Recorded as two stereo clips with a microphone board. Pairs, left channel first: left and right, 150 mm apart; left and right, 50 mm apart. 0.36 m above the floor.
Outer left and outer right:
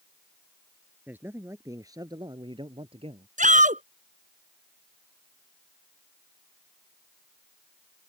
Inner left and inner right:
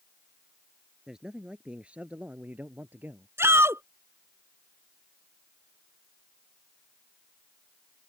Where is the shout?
60° right (ahead or behind).